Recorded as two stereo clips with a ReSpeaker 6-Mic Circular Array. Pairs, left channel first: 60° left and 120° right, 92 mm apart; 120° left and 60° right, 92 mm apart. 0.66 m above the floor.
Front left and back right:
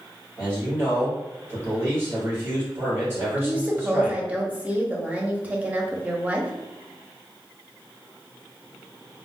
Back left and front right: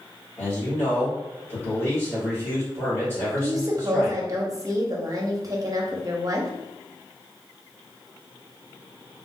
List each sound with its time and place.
0.4 s a man speaking: straight behind, 1.7 m
3.4 s a woman speaking: 55° right, 0.6 m